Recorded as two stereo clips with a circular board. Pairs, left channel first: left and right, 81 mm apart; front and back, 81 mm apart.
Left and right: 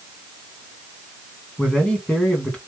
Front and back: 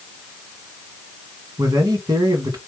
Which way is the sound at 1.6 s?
165° left.